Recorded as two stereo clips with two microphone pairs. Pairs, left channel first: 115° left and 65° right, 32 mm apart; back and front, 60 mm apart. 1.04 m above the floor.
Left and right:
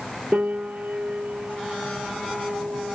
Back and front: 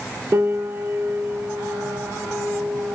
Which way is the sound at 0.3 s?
35° right.